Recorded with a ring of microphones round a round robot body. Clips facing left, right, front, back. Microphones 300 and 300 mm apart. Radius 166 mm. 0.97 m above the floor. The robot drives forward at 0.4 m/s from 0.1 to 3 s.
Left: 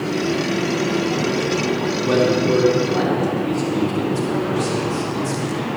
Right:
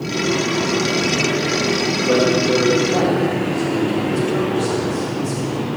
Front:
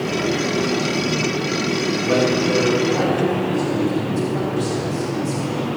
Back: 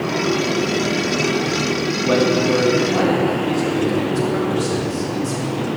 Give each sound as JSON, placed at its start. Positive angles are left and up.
{"t": 2.0, "sound": "a man speaking", "azimuth_deg": 165, "distance_m": 2.5}